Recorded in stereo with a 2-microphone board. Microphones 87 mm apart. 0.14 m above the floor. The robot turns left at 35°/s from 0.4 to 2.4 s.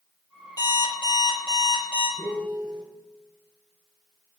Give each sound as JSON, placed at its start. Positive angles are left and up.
{"t": 0.6, "sound": "an alarm clock", "azimuth_deg": 125, "distance_m": 3.0}
{"t": 2.2, "sound": "a piano", "side_deg": 60, "distance_m": 2.5}